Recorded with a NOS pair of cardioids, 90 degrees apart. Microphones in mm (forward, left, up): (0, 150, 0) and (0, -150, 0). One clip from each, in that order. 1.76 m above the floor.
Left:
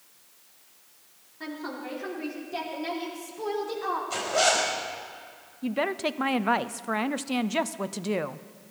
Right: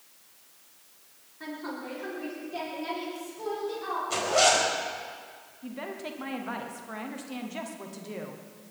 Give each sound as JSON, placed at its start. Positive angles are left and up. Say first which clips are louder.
{"t": 1.4, "sound": "a woman speaking", "louder": "left 1 dB", "azimuth_deg": 25, "distance_m": 6.0}
{"t": 4.1, "sound": "a zipper", "louder": "right 2 dB", "azimuth_deg": -15, "distance_m": 4.5}
{"t": 5.6, "sound": "a woman speaking", "louder": "left 10 dB", "azimuth_deg": 60, "distance_m": 0.8}